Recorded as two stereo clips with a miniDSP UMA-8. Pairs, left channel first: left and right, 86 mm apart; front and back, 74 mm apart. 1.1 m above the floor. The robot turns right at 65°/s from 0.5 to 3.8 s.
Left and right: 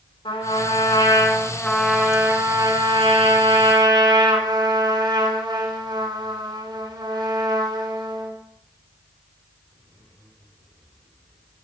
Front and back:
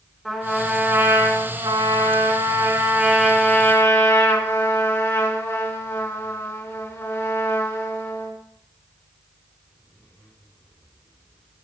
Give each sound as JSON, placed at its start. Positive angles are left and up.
{"t": 0.2, "sound": "a trumpet", "azimuth_deg": 85, "distance_m": 3.5}